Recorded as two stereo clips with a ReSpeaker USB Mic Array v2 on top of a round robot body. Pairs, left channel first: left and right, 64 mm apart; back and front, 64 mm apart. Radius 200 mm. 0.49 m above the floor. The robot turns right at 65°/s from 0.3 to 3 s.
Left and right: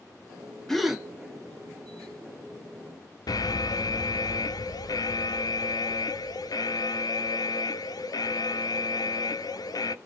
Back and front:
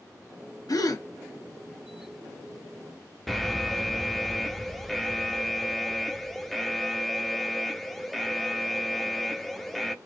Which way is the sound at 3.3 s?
90° left.